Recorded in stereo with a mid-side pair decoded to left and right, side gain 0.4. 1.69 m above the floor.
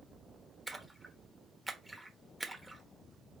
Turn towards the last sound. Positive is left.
turn(degrees=-10)